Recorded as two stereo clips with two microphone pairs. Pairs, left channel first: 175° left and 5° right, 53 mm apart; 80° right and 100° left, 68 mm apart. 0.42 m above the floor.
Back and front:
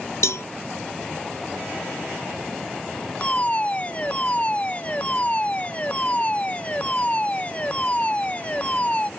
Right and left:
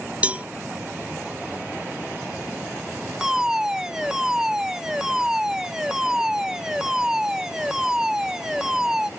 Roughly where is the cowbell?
Behind.